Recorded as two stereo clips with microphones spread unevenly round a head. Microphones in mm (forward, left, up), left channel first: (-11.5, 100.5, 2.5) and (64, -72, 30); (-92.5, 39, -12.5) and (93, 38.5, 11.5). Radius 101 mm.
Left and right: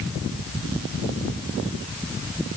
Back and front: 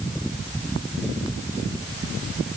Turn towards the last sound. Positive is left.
No sound to turn to.